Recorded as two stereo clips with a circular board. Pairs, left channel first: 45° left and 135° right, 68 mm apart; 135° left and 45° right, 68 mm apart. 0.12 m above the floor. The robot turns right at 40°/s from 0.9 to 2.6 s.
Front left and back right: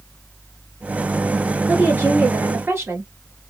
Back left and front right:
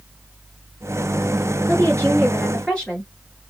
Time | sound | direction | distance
1.7 | a woman speaking | 165° left | 1.8 m